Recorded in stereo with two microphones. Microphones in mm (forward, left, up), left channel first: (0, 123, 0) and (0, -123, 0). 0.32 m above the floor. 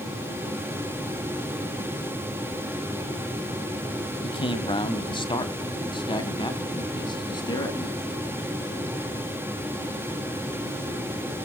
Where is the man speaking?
20° left (ahead or behind), 1.3 m.